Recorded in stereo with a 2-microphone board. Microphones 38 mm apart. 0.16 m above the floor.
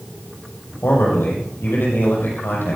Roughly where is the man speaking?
Left.